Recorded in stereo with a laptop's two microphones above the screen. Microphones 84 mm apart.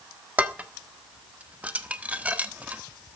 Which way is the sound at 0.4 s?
15° right (ahead or behind).